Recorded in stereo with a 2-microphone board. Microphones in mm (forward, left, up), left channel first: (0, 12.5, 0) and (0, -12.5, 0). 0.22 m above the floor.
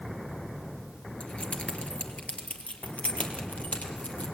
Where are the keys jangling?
55° left (ahead or behind), 2.5 m; by 4.2 s 80° left, 5 m.